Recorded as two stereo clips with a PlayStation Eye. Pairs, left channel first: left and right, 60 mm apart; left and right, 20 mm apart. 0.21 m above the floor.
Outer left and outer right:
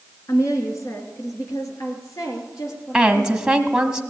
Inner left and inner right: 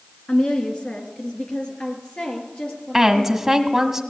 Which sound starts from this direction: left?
A woman speaking, at 0.3 s.